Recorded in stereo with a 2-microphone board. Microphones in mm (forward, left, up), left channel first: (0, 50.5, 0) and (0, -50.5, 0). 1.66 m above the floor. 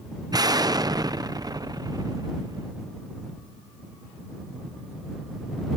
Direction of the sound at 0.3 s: 40° right (ahead or behind).